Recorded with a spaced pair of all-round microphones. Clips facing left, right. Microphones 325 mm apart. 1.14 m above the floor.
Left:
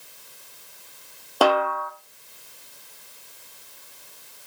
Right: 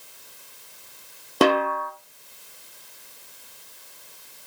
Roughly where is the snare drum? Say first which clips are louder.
Right 1 dB; right.